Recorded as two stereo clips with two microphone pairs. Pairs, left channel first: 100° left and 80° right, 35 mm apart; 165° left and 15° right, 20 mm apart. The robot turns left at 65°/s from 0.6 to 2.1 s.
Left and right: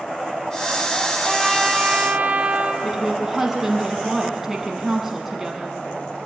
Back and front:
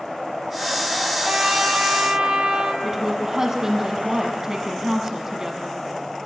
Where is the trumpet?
25° left, 2.5 m; by 2.7 s 35° right, 2.5 m.